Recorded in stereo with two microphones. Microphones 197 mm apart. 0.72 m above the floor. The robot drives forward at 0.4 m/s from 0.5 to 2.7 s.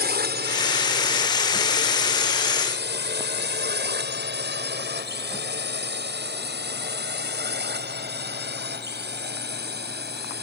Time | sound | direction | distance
0.0 | a drone | 55° right (ahead or behind) | ?